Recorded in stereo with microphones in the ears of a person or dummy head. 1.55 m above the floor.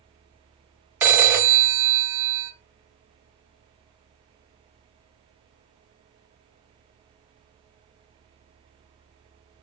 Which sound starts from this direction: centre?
A phone ringing, at 1.0 s.